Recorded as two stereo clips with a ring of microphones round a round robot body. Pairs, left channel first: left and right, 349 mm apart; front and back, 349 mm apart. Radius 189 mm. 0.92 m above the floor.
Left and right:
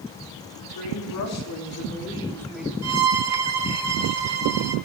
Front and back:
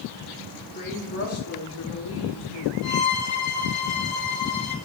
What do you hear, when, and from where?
0.8 s a woman speaking: 65° left, 2.5 m; by 2.7 s 5° right, 2.5 m
2.8 s a violin: 45° right, 1.3 m